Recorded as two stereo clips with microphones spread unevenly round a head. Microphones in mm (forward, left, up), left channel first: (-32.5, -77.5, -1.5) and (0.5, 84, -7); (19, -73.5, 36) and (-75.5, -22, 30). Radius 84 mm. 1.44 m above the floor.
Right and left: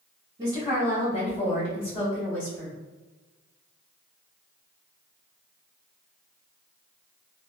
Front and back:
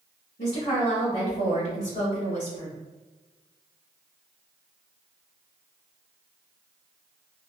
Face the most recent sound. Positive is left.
turn(degrees=-5)